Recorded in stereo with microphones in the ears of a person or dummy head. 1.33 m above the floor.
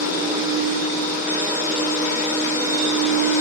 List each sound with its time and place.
0.0 s a machine running: 15° right (ahead or behind), 1.2 m